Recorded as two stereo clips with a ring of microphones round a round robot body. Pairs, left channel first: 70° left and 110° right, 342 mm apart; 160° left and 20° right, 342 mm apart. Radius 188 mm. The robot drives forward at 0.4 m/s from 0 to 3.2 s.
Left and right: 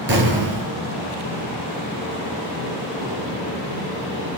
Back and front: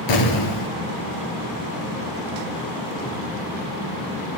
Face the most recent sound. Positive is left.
turn(degrees=-175)